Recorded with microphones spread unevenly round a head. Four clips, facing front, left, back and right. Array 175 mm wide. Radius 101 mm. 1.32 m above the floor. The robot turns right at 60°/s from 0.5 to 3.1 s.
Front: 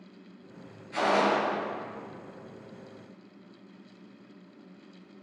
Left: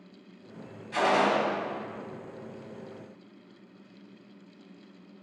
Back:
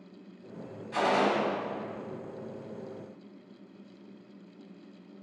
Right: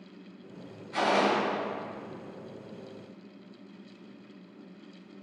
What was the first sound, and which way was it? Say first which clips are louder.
A gunshot: left 1 dB, front 1 dB; 105° left.